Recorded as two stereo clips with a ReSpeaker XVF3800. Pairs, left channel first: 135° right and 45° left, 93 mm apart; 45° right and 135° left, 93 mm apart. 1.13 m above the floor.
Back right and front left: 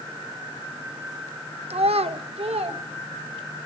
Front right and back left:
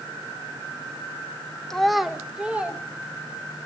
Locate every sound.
1.7 s a child speaking: 40° left, 0.7 m; by 2.8 s 60° left, 1.3 m